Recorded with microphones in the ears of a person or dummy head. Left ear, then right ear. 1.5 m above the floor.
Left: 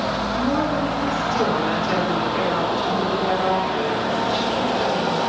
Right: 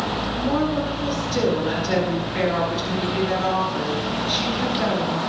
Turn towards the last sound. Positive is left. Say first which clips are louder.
# even
turn(degrees=30)  # may be behind; listen again after turning